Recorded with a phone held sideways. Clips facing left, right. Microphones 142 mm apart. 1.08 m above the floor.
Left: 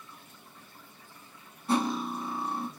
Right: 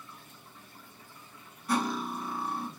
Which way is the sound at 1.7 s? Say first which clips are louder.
Left 2 dB; 30° left (ahead or behind).